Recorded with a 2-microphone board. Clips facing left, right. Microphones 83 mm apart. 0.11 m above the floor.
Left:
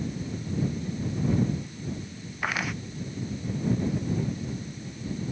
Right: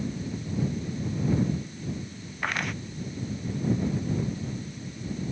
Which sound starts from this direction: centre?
Footsteps, at 2.4 s.